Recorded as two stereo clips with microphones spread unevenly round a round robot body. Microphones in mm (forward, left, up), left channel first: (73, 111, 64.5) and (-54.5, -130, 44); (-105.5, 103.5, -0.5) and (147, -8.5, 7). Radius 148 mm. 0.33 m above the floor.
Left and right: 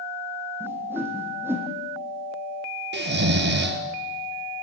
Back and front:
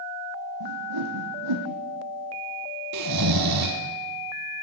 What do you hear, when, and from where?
0.6 s a whoosh: 35° right, 3.5 m
2.9 s snoring: 65° right, 2 m